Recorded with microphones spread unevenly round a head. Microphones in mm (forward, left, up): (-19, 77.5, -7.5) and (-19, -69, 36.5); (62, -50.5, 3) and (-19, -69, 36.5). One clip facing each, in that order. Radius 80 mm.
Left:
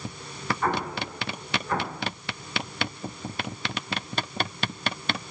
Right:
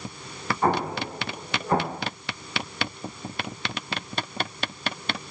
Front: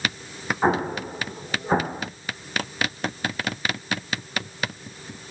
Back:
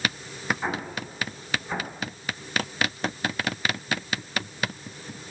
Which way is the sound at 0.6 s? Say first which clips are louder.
Right 5 dB, front 9 dB; 45° right.